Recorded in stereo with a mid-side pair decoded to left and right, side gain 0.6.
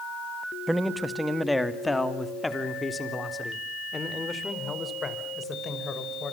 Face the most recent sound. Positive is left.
turn(degrees=30)